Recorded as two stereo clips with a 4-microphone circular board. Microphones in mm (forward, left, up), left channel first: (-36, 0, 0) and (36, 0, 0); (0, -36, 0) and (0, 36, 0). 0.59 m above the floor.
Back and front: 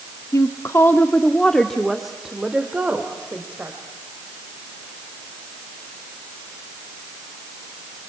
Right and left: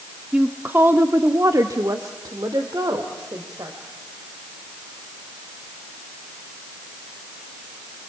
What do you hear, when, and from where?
0.3 s a woman speaking: 160° left, 1.0 m; by 3.8 s 65° left, 2.5 m